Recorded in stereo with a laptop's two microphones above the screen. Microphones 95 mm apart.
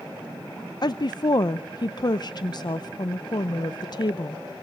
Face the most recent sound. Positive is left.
turn(degrees=45)  # may be behind; listen again after turning